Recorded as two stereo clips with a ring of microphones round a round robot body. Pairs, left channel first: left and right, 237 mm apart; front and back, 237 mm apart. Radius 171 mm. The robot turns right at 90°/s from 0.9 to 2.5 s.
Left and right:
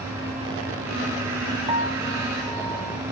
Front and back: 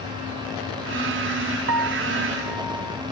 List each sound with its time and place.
1.7 s a piano: 165° right; by 3.0 s 90° right